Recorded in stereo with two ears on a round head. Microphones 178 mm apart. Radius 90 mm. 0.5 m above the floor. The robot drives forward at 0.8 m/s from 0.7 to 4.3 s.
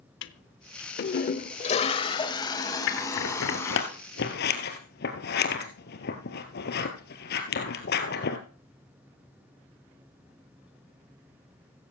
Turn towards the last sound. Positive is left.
turn(degrees=60)  # may be behind; listen again after turning